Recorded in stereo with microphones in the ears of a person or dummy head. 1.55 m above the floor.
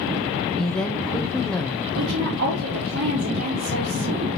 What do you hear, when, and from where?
0.6 s a woman speaking: 5° left (ahead or behind), 0.9 m
2.0 s a woman speaking: 60° right (ahead or behind), 4 m